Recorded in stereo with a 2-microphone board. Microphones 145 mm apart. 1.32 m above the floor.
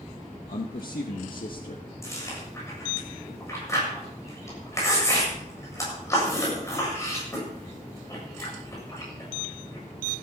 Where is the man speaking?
80° left, 1.2 m; by 1.9 s 85° left, 1.9 m.